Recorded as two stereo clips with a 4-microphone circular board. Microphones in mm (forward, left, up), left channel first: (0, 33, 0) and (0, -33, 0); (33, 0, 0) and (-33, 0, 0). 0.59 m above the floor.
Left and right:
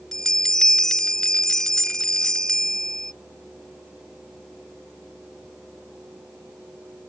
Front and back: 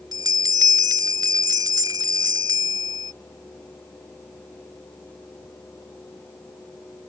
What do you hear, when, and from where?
0.1 s a bell: 170° left